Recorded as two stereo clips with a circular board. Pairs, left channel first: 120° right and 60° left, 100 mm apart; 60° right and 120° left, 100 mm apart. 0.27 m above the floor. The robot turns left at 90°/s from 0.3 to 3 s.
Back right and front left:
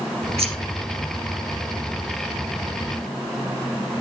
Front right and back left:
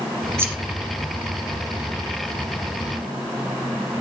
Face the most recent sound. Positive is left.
turn(degrees=180)